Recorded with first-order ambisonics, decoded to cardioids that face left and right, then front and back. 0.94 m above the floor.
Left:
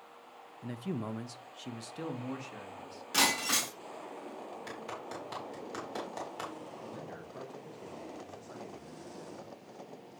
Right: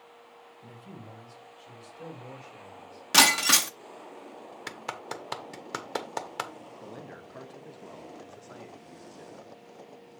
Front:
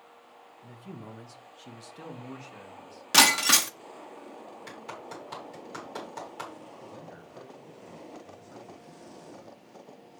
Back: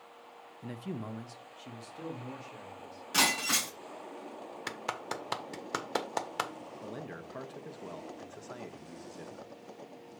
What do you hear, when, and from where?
0.6 s a man speaking: 145° left, 0.5 m; by 3.0 s 70° left, 2 m
3.1 s breaking glass: 45° right, 0.9 m
4.7 s a clap: 135° right, 1.0 m
6.8 s a man speaking: 160° right, 1.1 m